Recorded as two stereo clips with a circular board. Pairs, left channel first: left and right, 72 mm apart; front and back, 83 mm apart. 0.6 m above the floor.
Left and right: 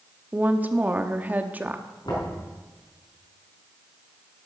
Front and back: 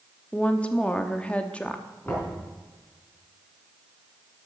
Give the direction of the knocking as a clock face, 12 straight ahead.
10 o'clock.